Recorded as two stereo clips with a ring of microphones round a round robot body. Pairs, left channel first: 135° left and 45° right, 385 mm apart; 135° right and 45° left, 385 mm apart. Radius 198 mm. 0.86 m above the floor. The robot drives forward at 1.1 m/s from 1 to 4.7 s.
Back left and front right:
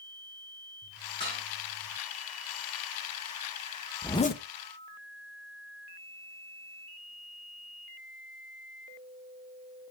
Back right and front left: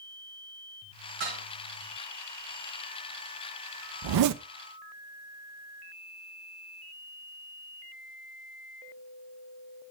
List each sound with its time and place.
1.2 s dishes clattering: 55° left, 6.5 m; by 1.4 s 60° left, 6 m
4.0 s a zipper: 45° left, 0.7 m; by 4.4 s 100° left, 0.6 m